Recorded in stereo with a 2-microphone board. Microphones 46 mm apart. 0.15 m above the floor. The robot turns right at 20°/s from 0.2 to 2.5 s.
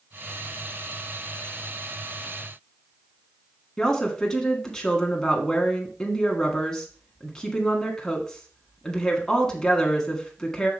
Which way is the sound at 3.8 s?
15° left (ahead or behind).